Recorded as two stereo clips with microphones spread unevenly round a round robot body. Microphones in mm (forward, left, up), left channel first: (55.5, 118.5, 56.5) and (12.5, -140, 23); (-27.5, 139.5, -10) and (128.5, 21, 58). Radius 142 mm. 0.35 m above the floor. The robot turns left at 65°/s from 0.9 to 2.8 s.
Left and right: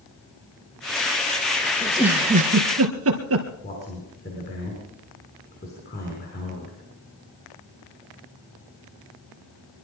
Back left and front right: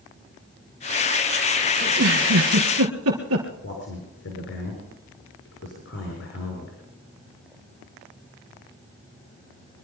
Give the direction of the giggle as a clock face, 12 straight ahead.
12 o'clock.